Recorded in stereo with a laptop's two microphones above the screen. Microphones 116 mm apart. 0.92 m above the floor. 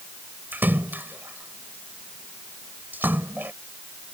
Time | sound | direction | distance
0.5 | a splash | 15° right (ahead or behind) | ?